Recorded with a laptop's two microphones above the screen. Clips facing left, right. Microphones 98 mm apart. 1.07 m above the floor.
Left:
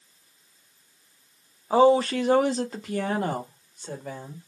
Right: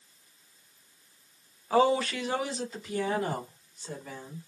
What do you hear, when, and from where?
1.7 s a woman speaking: 25° left (ahead or behind), 0.6 m; by 4.5 s 60° left (ahead or behind), 1.5 m